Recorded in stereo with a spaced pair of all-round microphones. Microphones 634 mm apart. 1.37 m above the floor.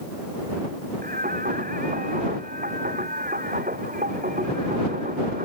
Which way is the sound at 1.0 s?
15° right (ahead or behind).